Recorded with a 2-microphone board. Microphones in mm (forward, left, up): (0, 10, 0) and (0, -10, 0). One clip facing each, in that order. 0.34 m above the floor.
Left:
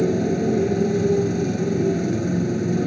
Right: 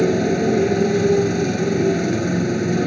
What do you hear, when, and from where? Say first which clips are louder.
0.0 s a motorcycle: right 3 dB; 35° right (ahead or behind)